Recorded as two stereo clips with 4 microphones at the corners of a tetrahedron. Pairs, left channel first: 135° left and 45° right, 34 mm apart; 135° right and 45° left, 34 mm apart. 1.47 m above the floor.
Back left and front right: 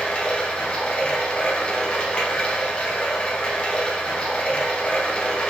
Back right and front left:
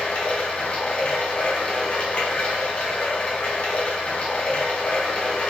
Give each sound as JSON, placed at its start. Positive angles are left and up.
{"t": 0.0, "sound": "running water", "azimuth_deg": 180, "distance_m": 0.8}